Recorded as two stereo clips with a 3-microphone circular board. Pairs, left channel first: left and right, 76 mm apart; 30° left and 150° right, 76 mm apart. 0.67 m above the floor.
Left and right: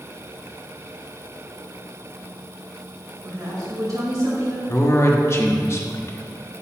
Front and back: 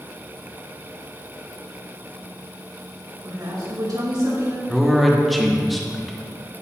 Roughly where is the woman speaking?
Behind right.